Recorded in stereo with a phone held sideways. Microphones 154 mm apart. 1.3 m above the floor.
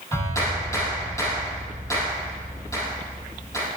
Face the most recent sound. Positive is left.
turn(degrees=20)  # may be behind; listen again after turning